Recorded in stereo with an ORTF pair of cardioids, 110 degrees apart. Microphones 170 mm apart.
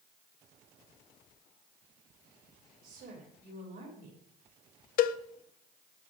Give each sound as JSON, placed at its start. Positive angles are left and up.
{"t": 2.8, "sound": "a woman speaking", "azimuth_deg": -65, "distance_m": 5.0}
{"t": 5.0, "sound": "a cowbell", "azimuth_deg": 55, "distance_m": 0.5}